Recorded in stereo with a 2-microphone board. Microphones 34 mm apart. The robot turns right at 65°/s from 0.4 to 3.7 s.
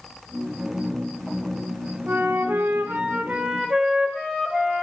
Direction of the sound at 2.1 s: 130° right.